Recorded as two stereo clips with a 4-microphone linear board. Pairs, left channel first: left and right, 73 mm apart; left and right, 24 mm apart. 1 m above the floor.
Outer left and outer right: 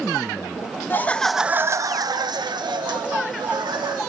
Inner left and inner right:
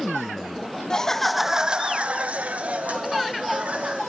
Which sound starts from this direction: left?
Laughter, at 0.9 s.